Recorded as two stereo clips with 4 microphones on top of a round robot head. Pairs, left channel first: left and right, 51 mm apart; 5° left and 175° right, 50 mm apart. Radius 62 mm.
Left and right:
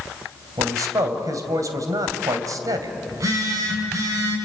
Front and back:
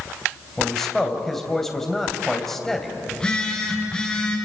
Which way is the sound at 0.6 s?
80° right.